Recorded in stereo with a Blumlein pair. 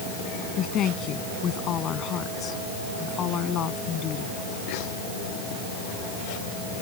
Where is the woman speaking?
30° left.